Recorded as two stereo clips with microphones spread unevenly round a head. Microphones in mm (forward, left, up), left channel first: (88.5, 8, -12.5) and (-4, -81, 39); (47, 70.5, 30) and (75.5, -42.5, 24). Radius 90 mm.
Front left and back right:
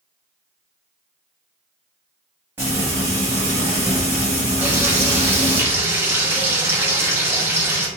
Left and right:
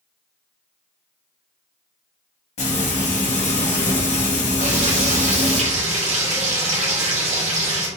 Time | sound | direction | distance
2.6 | frying | 140° left | 1.7 m
4.6 | frying | 60° right | 1.8 m